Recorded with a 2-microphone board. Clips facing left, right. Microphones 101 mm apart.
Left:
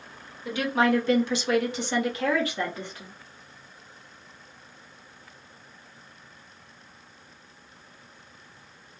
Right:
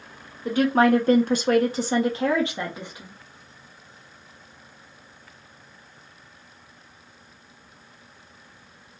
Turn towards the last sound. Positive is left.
turn(degrees=-15)  # may be behind; listen again after turning